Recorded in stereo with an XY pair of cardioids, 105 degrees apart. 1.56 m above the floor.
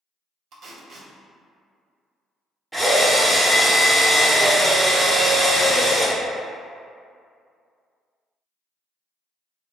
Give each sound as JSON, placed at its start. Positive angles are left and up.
{"t": 0.5, "sound": "tape being pulled", "azimuth_deg": -65, "distance_m": 0.7}
{"t": 2.7, "sound": "a drill", "azimuth_deg": -5, "distance_m": 0.9}